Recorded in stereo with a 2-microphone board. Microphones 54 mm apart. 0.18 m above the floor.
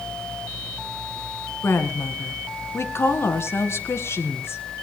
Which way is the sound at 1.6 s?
55° left (ahead or behind).